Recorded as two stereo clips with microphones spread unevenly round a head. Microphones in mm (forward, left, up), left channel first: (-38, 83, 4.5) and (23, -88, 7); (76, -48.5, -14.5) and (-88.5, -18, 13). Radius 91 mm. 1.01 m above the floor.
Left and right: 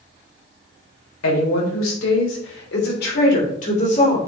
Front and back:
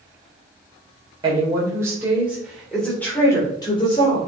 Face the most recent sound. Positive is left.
turn(degrees=50)